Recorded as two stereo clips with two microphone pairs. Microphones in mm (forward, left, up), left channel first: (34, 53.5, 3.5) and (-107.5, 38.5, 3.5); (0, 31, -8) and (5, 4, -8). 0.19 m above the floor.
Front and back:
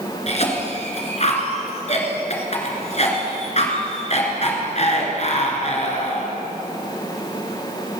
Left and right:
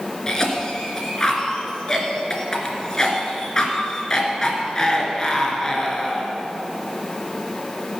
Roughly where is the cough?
Ahead left.